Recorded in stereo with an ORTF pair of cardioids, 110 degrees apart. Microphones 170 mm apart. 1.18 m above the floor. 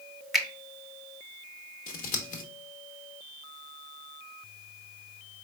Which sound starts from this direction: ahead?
A finger snap, at 0.3 s.